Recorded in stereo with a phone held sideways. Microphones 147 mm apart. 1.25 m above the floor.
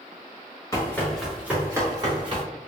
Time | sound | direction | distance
0.7 | running footsteps | 20° left (ahead or behind) | 1.2 m